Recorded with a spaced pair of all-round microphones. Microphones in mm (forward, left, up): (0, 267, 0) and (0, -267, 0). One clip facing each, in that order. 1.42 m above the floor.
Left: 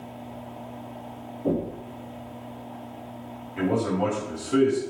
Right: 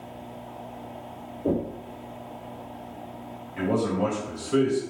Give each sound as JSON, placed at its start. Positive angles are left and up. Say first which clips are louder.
{"t": 1.4, "sound": "knocking", "louder": "even", "side_deg": 25, "distance_m": 1.3}
{"t": 3.6, "sound": "a man speaking", "louder": "even", "side_deg": 10, "distance_m": 1.7}